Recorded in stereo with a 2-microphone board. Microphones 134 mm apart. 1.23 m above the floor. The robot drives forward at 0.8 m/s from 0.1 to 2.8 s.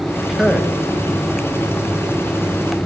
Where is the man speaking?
Centre (ahead or behind), 1.3 m.